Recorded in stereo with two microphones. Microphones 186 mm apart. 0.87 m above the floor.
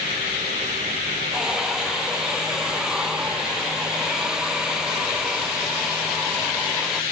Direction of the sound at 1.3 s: 5° right (ahead or behind).